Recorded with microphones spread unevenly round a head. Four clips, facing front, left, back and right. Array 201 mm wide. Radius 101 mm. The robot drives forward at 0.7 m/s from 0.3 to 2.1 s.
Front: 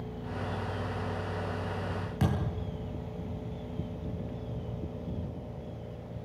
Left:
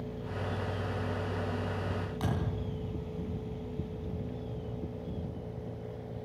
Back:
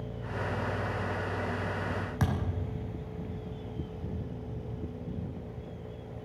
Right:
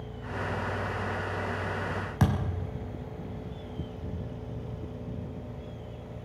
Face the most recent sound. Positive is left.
turn(degrees=-85)